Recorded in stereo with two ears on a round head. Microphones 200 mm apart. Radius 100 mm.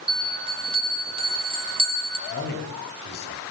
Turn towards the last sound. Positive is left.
turn(degrees=45)  # may be behind; listen again after turning